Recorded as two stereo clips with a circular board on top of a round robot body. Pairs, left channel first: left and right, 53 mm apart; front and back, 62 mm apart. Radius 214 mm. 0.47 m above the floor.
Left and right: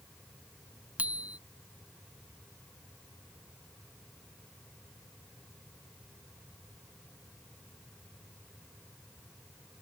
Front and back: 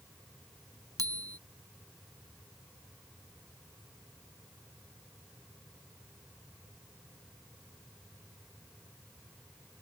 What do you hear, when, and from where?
1.0 s a bicycle bell: 155° right